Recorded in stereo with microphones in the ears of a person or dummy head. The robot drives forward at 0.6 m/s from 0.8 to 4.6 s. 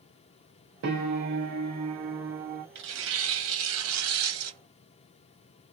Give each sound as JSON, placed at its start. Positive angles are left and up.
{"t": 0.8, "sound": "a piano", "side_deg": -65, "distance_m": 1.5}
{"t": 2.8, "sound": "tearing paper", "side_deg": -65, "distance_m": 2.0}